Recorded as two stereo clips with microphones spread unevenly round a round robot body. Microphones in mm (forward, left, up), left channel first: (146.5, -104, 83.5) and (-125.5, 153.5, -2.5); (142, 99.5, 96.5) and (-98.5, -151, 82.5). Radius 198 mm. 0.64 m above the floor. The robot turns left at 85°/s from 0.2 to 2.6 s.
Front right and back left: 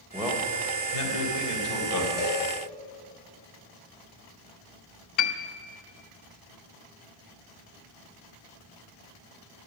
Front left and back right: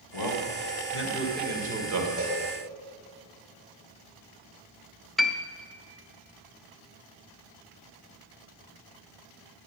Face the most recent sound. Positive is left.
turn(degrees=-45)